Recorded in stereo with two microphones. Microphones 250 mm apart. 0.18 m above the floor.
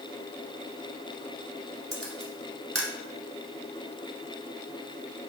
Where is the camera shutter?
65° right (ahead or behind), 0.9 m.